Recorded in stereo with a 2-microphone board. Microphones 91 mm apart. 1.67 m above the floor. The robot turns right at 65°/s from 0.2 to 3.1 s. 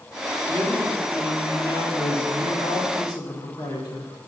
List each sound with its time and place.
0.5 s a man speaking: 35° right, 1.7 m; by 4.3 s 135° left, 1.7 m